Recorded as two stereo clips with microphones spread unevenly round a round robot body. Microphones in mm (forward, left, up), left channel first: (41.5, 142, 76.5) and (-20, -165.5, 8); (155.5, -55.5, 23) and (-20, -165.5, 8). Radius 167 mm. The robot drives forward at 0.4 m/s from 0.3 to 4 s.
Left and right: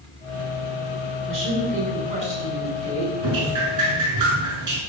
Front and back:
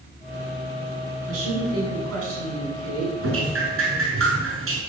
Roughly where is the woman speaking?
Behind.